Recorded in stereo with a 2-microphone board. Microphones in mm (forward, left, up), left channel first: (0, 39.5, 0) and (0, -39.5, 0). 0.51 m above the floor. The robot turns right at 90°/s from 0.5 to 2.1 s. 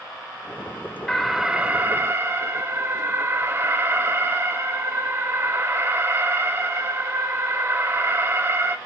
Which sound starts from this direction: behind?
An alarm, at 1.1 s.